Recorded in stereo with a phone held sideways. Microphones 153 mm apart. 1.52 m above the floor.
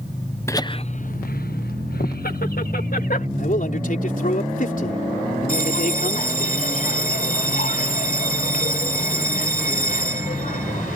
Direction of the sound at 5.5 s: 65° left (ahead or behind).